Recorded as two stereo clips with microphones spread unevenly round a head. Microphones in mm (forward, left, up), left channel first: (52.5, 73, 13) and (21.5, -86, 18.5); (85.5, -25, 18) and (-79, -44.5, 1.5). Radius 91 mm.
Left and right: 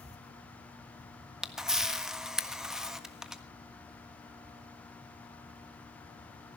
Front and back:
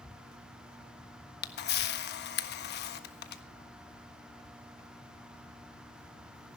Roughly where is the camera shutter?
Ahead.